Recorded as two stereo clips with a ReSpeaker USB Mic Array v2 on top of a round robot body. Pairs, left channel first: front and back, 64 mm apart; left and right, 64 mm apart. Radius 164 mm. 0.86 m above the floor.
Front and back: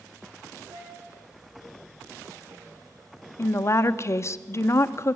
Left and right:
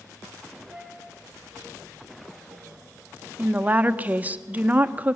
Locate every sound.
0.7 s a flute: 160° right, 6.5 m
3.4 s a woman speaking: 30° right, 1.1 m